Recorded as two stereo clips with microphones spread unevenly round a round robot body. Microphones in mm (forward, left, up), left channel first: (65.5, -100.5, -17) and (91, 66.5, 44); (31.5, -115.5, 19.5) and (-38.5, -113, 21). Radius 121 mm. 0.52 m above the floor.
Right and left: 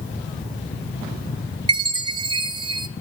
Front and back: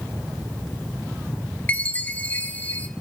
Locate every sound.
1.7 s a chime: 5° left, 1.1 m